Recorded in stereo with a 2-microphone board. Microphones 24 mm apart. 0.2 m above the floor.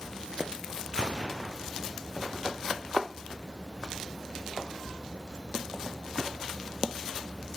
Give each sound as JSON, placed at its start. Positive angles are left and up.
{"t": 0.9, "sound": "a gunshot", "side_deg": -40, "distance_m": 3.0}